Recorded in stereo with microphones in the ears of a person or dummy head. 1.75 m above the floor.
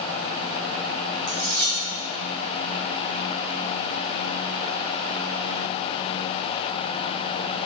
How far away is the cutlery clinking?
About 3.5 m.